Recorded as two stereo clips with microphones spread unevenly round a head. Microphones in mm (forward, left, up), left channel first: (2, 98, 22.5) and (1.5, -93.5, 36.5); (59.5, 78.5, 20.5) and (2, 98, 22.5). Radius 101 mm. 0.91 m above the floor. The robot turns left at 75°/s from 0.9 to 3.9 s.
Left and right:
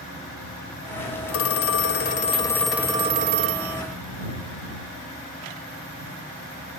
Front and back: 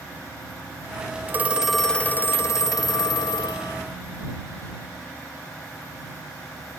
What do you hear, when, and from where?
1.3 s a phone ringing: 105° left; by 3.8 s 85° right